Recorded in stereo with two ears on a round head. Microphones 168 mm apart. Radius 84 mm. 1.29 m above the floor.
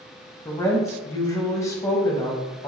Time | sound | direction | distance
0.5 | a woman speaking | 15° left (ahead or behind) | 0.6 m